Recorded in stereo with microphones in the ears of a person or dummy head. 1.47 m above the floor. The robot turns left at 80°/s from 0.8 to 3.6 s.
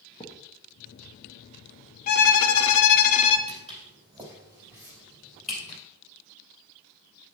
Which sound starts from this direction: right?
Footsteps, at 3.5 s.